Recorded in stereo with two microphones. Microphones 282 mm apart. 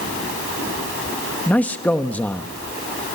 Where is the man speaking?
5° left (ahead or behind), 0.9 m.